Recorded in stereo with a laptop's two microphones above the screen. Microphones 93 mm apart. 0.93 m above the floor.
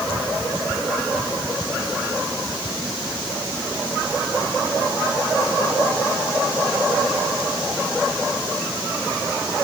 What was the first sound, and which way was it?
Only background noise.